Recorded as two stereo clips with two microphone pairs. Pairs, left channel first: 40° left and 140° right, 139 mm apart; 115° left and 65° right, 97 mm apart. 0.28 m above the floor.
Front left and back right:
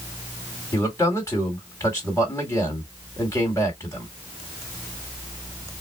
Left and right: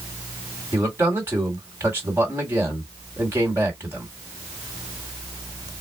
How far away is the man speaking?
About 1.9 m.